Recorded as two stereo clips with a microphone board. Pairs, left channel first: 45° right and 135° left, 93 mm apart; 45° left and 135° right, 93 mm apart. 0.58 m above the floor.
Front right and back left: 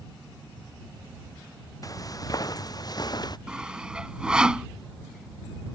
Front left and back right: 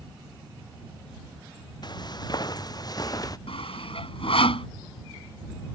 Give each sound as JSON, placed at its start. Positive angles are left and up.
{"t": 1.8, "sound": "footsteps", "azimuth_deg": 5}
{"t": 3.5, "sound": "sawing", "azimuth_deg": 55}